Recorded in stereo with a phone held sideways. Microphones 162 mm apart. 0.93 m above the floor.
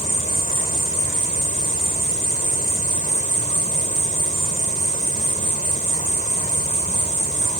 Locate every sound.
0.0 s an insect: 50° left (ahead or behind)